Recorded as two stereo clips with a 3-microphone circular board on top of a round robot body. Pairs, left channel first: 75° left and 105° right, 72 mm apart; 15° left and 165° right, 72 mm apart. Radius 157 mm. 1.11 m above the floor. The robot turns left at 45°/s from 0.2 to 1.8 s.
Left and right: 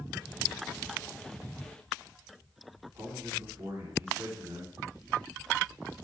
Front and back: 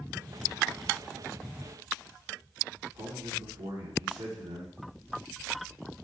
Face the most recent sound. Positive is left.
turn(degrees=-165)